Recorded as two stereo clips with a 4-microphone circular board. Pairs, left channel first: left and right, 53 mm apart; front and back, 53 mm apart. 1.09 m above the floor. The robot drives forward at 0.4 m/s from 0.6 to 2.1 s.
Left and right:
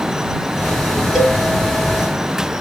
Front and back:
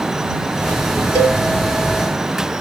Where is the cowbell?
165° right, 1.5 m.